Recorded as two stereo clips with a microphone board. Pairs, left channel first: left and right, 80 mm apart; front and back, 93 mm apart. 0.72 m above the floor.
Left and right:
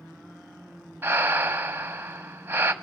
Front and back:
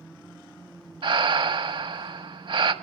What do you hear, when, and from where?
1.0 s breathing: 155° right, 1.3 m